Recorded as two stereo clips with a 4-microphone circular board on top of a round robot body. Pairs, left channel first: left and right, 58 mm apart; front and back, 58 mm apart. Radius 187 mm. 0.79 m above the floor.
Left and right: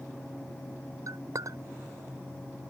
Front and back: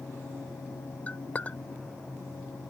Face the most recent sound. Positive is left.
turn(degrees=-65)